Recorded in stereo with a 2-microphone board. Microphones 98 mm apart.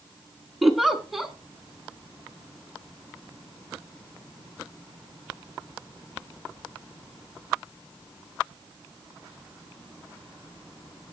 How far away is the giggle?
About 1.2 m.